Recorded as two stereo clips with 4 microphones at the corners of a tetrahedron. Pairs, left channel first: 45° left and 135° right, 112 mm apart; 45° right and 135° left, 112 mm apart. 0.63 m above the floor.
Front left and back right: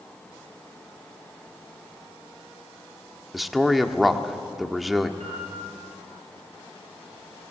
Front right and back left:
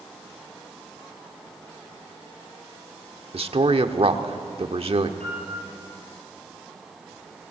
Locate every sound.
3.3 s a man speaking: 135° left, 1.2 m
5.2 s a piano: 125° right, 6.5 m